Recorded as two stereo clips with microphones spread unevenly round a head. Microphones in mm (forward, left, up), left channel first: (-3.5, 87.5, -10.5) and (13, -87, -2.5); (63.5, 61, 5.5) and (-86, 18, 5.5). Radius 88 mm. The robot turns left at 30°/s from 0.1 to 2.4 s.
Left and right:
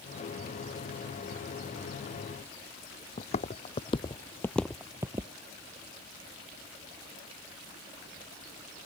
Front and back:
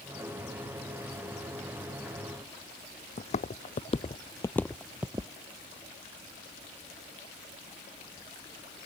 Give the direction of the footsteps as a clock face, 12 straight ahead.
10 o'clock.